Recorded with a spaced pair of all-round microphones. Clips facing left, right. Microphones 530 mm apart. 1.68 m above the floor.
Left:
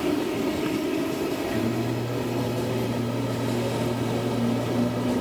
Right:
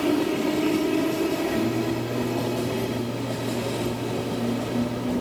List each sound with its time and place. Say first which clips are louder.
1.5 s singing: right 2 dB; 40° left (ahead or behind), 2 m